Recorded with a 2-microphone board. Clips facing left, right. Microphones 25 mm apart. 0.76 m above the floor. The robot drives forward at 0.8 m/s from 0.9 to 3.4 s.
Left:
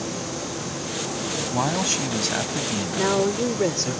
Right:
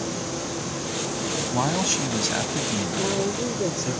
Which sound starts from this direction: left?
A woman speaking, at 3.0 s.